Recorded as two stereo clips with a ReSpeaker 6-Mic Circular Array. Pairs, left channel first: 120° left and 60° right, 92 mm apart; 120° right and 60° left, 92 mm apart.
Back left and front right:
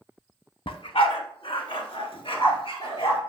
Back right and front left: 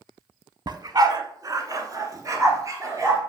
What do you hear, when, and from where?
0.7 s a dog barking: 100° left, 0.6 m; by 3.2 s 115° left, 1.8 m